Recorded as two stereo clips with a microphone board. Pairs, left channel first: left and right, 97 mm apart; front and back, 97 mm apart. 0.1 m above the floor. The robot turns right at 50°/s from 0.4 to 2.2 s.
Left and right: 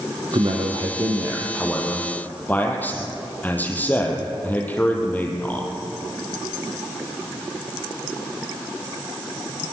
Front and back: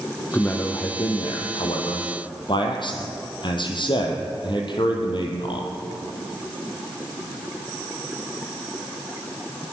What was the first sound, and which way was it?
A man speaking, 70° right.